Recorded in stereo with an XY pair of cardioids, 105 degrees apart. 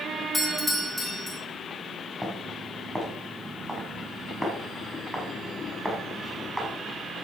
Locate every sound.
0.3 s a doorbell: 10° left, 4 m
2.2 s footsteps: 10° right, 7 m